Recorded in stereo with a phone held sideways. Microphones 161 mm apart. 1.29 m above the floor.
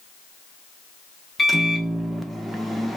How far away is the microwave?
About 0.5 m.